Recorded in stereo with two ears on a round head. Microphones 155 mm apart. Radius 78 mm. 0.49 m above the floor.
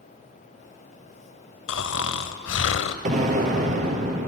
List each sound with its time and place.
1.7 s snoring: 85° left, 0.6 m
3.0 s an explosion: 45° right (ahead or behind), 1.7 m